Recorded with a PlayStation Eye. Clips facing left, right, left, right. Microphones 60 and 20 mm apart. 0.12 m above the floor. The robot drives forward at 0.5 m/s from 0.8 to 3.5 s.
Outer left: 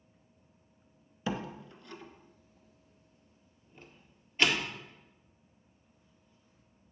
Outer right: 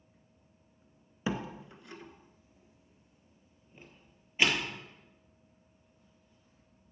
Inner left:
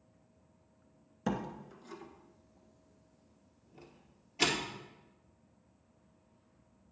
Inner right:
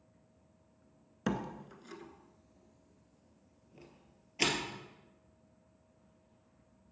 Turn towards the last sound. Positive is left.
turn(degrees=-10)  # may be behind; listen again after turning